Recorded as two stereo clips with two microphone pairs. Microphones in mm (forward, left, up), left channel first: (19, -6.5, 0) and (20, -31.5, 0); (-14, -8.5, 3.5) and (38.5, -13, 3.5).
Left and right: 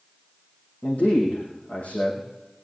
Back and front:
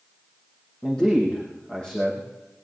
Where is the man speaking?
105° left, 5.5 m.